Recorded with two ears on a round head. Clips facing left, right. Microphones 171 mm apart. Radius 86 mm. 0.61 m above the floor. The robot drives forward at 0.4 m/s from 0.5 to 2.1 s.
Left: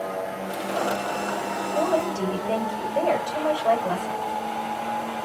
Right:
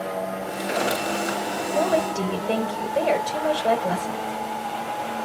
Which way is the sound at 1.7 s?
25° right (ahead or behind).